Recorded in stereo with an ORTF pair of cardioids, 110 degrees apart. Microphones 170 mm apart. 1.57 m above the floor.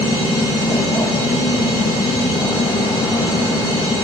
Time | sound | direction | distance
0.0 | a machine running | 25° left | 1.6 m